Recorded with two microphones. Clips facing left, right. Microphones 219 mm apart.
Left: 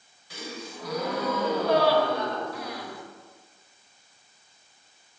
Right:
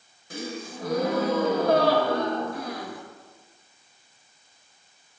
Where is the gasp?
50° right (ahead or behind), 0.5 m.